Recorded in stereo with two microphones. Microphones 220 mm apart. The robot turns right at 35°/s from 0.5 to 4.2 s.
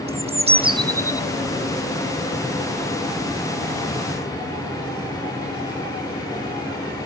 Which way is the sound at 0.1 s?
30° right (ahead or behind).